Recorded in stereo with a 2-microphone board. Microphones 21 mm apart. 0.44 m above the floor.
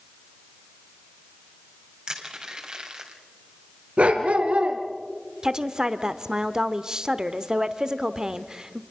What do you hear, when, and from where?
2.1 s crushing: 35° right (ahead or behind), 2.5 m
4.0 s a dog barking: 85° right, 2 m
5.4 s a woman speaking: 30° right (ahead or behind), 0.9 m